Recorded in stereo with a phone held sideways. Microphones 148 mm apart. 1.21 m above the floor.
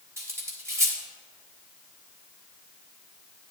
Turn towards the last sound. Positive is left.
turn(degrees=-15)  # may be behind; listen again after turning